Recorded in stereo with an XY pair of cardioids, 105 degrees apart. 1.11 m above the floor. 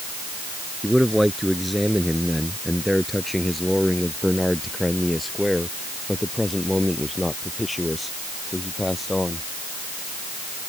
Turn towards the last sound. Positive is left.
turn(degrees=15)